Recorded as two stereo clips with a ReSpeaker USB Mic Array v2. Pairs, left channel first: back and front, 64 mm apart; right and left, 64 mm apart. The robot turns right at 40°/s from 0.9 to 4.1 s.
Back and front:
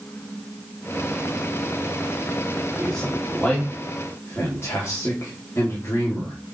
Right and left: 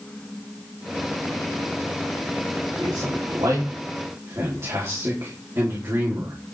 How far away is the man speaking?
About 4.5 m.